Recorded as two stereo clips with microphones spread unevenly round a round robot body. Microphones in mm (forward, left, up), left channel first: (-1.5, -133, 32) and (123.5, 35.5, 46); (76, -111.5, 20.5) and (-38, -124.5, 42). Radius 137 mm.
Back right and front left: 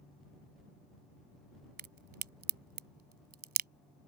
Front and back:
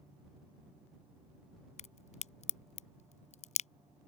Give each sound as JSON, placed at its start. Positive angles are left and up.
{"t": 1.8, "sound": "a crack", "azimuth_deg": 10}